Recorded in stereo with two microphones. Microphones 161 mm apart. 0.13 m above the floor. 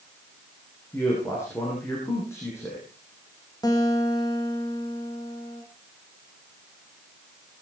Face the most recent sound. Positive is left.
turn(degrees=20)  # may be behind; listen again after turning